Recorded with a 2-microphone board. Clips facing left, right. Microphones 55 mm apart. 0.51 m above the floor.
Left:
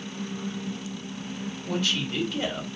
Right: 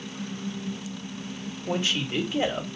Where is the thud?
No thud in this recording.